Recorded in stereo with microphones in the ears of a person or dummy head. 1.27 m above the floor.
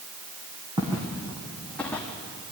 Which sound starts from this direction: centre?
Footsteps, at 0.8 s.